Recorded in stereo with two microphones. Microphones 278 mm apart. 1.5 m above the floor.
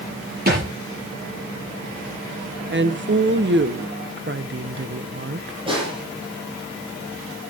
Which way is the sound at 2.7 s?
40° right (ahead or behind).